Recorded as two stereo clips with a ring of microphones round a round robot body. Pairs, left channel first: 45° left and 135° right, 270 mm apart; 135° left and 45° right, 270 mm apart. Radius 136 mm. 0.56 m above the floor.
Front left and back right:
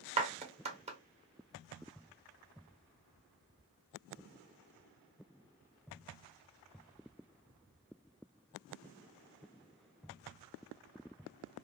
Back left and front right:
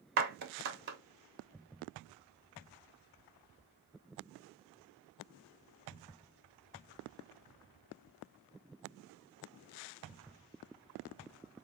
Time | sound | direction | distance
0.2 | a clap | 80° right | 1.2 m